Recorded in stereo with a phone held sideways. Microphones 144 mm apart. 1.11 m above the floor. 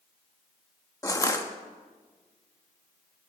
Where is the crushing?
20° left (ahead or behind), 1.0 m.